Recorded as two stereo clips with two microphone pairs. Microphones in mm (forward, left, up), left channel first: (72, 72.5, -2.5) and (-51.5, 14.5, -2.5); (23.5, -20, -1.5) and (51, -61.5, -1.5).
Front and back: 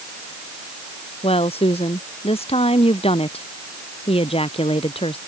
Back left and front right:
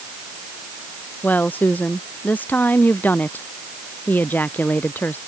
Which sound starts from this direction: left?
A woman speaking, at 1.2 s.